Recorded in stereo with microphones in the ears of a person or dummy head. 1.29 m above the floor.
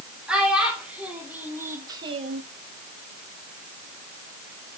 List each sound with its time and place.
0.3 s a child speaking: 5° right (ahead or behind), 3.5 m; by 2.4 s 55° right (ahead or behind), 0.6 m